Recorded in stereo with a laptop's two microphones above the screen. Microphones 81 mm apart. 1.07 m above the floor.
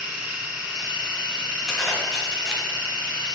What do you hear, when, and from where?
0.0 s a machine running: 20° right (ahead or behind), 1.3 m
1.7 s a zipper: 5° right (ahead or behind), 1.0 m